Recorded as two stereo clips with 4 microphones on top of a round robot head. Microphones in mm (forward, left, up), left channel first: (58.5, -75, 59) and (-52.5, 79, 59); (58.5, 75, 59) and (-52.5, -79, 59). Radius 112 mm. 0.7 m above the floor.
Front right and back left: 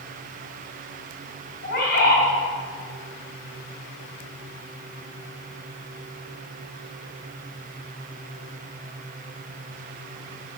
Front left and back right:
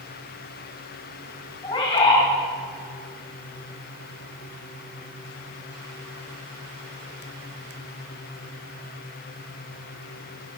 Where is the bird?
10° right, 3.5 m.